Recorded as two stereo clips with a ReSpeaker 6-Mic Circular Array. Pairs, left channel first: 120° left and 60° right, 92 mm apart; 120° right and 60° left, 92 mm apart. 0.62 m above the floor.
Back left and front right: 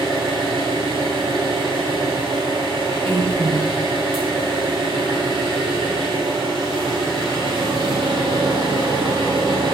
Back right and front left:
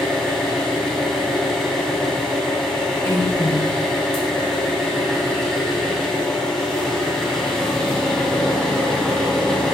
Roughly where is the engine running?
Ahead right.